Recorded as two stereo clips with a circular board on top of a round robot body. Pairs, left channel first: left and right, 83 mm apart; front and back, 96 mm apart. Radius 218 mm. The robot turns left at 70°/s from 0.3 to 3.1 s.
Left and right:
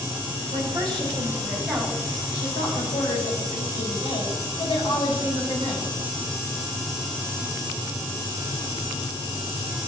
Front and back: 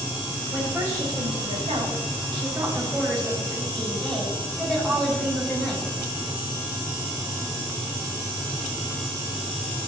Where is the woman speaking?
95° right, 6.5 m; by 5.9 s 85° left, 6.5 m.